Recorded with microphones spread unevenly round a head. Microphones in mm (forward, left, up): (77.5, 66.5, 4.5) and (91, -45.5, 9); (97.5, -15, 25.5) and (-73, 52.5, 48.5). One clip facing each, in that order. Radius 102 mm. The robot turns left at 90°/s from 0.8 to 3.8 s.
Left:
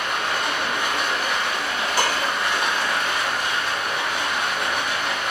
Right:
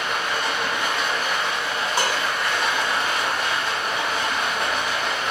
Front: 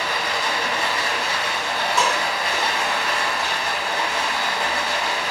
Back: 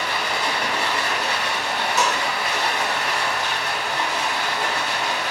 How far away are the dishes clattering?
About 1.1 m.